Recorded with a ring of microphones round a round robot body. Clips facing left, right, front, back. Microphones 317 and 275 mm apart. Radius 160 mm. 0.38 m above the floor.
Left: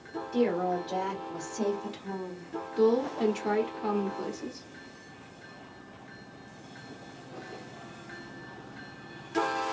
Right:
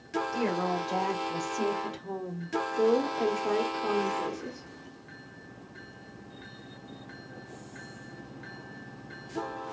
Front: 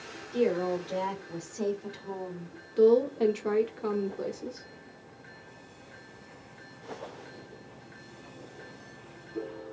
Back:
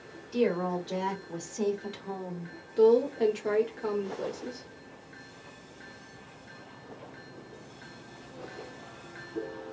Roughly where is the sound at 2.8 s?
Left.